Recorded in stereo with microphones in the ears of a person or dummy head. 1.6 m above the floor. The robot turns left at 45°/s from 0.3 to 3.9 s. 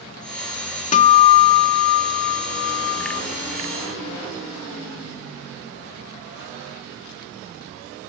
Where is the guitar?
140° left, 1.0 m; by 3.2 s 35° left, 1.0 m.